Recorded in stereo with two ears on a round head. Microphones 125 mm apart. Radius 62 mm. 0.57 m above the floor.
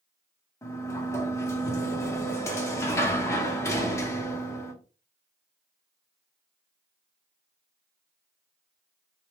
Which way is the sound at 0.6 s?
20° left (ahead or behind).